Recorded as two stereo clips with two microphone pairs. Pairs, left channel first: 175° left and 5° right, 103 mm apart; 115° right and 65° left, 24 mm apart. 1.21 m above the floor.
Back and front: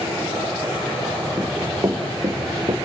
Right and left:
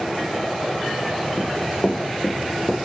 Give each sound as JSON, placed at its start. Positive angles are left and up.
{"t": 1.4, "sound": "running footsteps", "azimuth_deg": -65, "distance_m": 4.0}